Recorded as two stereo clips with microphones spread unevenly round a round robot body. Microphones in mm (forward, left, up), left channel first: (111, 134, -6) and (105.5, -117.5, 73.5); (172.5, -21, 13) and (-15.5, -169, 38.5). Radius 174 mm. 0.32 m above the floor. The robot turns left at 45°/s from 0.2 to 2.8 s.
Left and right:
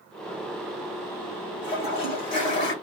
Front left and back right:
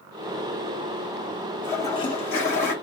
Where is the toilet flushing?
105° left, 1.1 m; by 2.7 s 55° left, 1.1 m.